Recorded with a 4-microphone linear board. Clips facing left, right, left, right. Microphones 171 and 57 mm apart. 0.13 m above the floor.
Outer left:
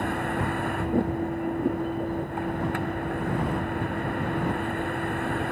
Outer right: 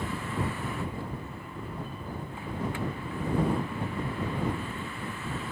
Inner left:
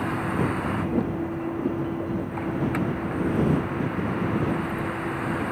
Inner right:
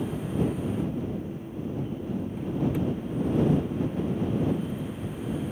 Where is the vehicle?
60° left (ahead or behind).